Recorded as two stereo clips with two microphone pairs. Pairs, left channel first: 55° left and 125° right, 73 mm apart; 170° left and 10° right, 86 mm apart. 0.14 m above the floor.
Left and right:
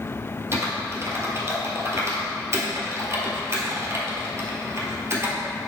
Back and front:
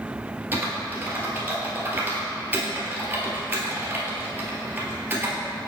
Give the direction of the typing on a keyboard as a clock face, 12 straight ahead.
3 o'clock.